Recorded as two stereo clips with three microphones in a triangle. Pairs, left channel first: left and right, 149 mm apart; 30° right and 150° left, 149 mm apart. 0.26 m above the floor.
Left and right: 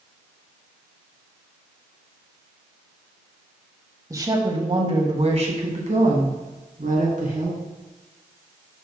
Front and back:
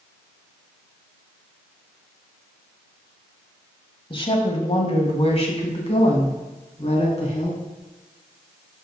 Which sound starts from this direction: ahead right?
A woman speaking, at 4.1 s.